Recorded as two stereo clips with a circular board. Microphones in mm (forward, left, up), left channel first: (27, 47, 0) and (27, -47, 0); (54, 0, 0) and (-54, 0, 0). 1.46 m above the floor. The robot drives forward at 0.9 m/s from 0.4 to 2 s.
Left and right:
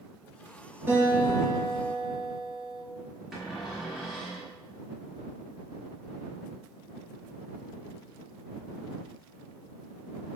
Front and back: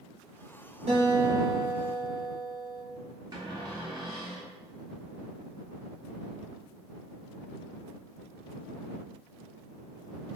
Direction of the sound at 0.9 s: 160° right.